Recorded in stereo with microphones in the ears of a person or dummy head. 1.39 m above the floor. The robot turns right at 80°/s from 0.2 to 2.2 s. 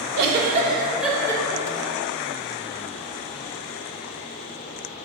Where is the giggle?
60° right (ahead or behind), 1.0 m; by 1.9 s 55° left (ahead or behind), 1.0 m.